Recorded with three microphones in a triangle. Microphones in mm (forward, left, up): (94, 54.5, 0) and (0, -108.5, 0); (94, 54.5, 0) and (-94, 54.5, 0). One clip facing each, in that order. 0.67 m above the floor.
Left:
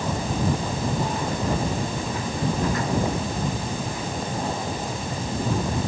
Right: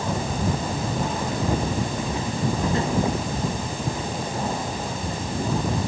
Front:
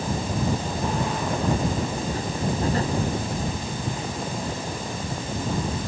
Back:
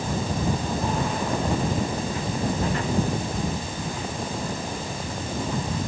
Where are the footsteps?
50° right; by 5.8 s 65° right.